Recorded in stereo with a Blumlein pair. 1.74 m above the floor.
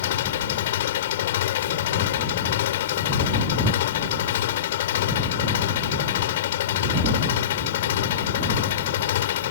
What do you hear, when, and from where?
0.0 s an engine running: 60° left